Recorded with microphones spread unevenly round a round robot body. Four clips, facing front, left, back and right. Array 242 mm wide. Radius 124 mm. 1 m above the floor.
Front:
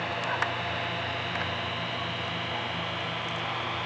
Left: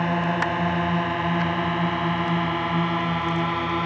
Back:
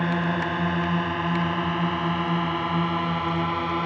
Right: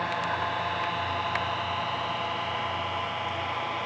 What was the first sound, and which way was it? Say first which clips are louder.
A drone: left 5 dB, back 5 dB; 130° left.